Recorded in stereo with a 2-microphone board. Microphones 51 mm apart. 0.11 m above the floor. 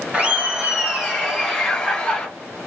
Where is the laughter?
25° right (ahead or behind), 1.6 m; by 2.3 s 15° left (ahead or behind), 1.6 m.